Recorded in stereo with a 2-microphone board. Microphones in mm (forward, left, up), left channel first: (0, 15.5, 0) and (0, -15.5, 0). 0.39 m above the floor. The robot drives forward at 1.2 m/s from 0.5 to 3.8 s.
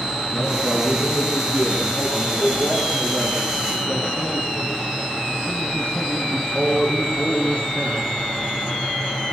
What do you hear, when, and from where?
0.3 s a man speaking: 55° left (ahead or behind), 5 m; by 8.0 s 30° left (ahead or behind), 8 m